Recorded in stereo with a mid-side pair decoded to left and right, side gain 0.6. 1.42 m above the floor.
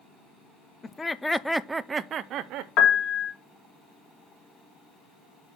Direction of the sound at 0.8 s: 25° left.